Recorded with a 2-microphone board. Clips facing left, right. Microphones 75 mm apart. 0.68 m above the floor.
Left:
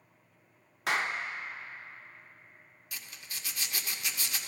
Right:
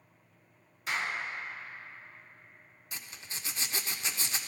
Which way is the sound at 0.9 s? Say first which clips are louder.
Left 3 dB; 75° left (ahead or behind).